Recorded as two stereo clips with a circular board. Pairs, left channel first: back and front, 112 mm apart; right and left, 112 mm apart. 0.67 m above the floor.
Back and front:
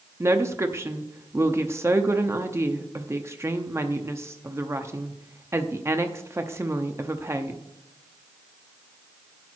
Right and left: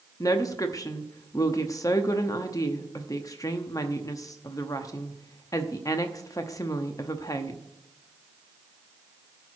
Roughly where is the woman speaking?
Ahead right.